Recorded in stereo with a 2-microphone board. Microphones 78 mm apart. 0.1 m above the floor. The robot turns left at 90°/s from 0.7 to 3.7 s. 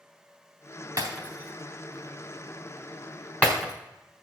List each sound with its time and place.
1.0 s breaking glass: 55° right (ahead or behind), 4 m; by 3.7 s 10° right (ahead or behind), 4 m